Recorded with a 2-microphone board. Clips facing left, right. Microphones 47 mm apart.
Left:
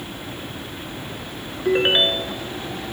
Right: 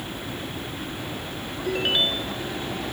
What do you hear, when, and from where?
1.6 s a ringtone: 35° left (ahead or behind)